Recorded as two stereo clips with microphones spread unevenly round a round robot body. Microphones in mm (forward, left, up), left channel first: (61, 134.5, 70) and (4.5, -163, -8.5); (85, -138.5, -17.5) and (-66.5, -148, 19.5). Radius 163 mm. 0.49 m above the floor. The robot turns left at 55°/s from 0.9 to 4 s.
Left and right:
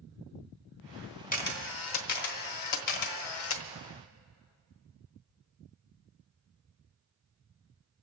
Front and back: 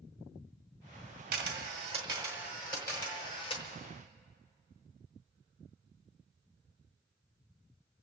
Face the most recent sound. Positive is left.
turn(degrees=5)